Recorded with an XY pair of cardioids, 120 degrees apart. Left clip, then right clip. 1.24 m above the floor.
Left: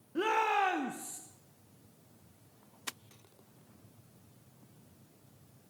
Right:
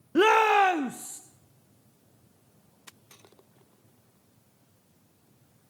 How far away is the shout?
About 0.9 m.